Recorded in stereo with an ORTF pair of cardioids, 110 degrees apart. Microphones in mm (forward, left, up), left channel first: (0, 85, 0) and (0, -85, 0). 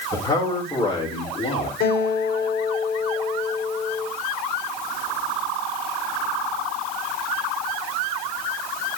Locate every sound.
0.1 s a man speaking: 20° left, 7 m; by 1.7 s 30° left, 5.5 m
1.8 s a guitar: 65° left, 3.5 m